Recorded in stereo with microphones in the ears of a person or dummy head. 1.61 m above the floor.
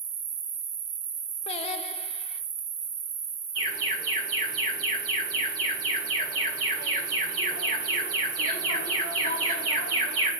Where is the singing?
40° left (ahead or behind), 0.8 m.